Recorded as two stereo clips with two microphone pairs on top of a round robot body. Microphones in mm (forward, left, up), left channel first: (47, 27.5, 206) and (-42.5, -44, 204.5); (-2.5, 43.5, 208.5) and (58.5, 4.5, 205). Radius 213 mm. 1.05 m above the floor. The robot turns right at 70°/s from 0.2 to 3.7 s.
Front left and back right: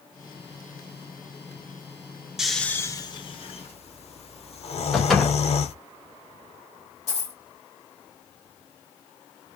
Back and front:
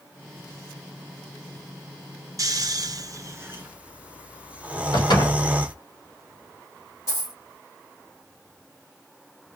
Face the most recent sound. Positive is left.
turn(degrees=100)